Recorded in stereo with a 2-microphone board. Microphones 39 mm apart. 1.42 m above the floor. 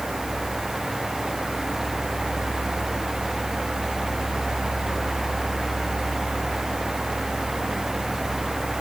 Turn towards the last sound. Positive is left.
No sound to turn to.